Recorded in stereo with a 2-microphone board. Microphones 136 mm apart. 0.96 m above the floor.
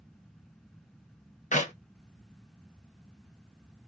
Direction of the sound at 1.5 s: 75° left (ahead or behind).